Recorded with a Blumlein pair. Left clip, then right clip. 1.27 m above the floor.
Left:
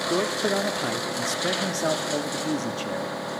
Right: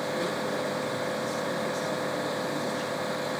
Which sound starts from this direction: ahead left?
A man speaking, at 0.1 s.